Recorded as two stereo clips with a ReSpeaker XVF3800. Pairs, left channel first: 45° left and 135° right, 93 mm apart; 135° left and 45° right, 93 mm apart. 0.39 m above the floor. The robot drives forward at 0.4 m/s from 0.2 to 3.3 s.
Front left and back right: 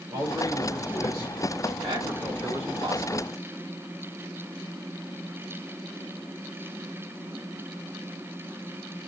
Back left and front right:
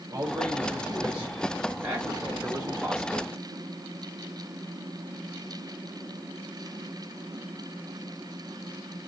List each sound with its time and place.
0.1 s a man speaking: 80° right, 1.9 m; by 3.3 s 120° right, 2 m